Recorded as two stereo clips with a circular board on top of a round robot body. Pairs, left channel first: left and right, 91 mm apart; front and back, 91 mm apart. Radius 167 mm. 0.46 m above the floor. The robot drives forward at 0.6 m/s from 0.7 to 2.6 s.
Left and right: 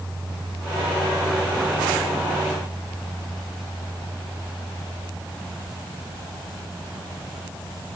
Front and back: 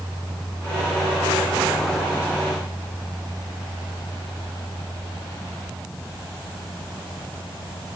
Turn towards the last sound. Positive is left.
No sound to turn to.